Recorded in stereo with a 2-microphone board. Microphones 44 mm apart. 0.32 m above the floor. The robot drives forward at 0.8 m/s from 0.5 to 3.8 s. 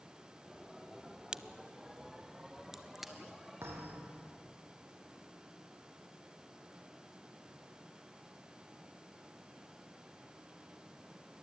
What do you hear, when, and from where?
1.3 s a crack: 20° right (ahead or behind), 0.5 m; by 3.1 s 5° right (ahead or behind), 1.9 m
3.6 s a thud: 90° right, 5 m; by 4.2 s 85° right, 5 m